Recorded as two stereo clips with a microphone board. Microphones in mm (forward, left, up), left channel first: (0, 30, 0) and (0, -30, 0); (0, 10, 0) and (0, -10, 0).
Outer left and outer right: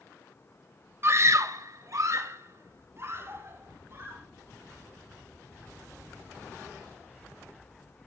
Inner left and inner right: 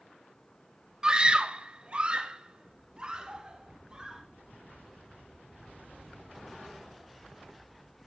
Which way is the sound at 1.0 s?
45° right (ahead or behind).